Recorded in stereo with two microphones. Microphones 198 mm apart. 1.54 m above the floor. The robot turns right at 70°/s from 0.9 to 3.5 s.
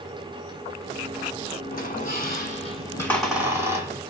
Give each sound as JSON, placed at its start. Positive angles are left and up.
{"t": 1.7, "sound": "a squeak", "azimuth_deg": 70, "distance_m": 1.9}